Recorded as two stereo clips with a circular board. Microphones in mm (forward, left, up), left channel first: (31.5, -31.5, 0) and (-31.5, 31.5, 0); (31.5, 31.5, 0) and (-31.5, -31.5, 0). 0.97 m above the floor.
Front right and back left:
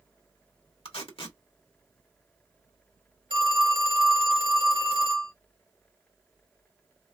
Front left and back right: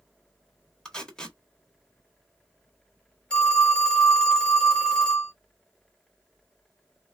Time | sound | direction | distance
0.8 | tape being pulled | 35° right | 1.3 m
3.3 | a phone ringing | 120° left | 2 m